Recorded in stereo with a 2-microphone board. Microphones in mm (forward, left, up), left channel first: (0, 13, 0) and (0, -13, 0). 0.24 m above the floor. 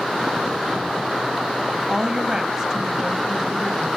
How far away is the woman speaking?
About 1.0 m.